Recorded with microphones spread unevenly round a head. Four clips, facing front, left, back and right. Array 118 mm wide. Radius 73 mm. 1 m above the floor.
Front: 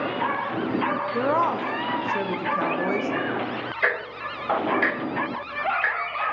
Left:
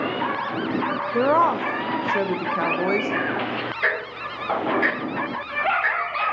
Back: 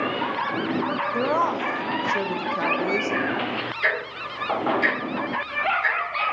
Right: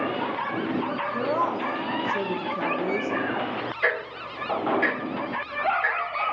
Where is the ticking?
25° left, 3 m.